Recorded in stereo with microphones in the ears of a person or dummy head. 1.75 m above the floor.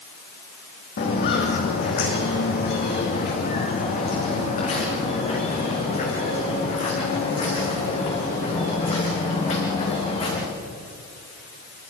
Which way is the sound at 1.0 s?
50° left (ahead or behind).